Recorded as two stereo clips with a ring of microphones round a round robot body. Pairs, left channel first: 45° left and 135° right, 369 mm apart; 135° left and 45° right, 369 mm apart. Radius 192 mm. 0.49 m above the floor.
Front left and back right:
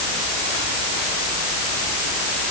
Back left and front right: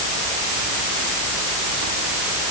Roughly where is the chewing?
I don't hear chewing.